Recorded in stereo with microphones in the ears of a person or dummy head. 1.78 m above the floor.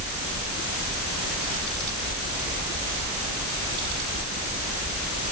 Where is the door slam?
I don't hear a door slam.